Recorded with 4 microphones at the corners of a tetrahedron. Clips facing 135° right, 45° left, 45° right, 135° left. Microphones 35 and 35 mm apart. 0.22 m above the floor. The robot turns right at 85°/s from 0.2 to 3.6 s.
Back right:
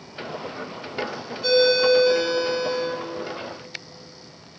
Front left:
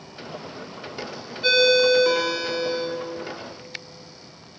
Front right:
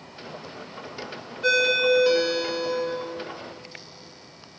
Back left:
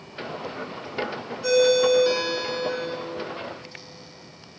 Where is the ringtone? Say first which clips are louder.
Even, back left 2 dB; 10° right, 1.0 m; by 2.9 s 115° left, 1.0 m.